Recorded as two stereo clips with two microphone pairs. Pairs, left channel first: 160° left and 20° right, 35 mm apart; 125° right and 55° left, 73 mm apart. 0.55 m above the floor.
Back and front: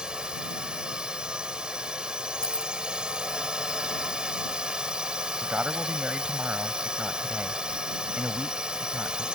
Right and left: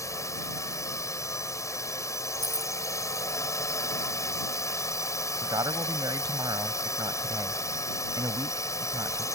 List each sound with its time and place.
0.0 s a drone: 85° right
2.4 s keys jangling: 135° right
5.4 s a man speaking: 35° left